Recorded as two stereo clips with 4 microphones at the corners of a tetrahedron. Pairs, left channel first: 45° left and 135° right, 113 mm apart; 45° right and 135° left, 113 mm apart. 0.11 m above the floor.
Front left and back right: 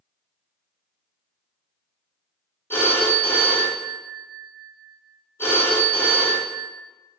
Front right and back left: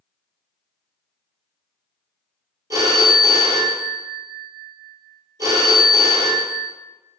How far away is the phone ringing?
About 0.8 m.